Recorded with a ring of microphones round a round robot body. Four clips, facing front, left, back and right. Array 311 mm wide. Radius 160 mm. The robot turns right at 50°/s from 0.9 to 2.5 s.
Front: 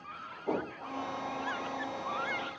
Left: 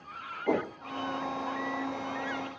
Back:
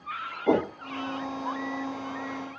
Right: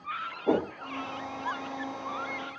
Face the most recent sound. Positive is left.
turn(degrees=-75)